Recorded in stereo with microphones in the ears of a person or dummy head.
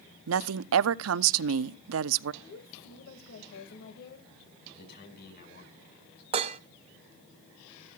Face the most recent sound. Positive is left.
turn(degrees=-30)  # may be behind; listen again after turning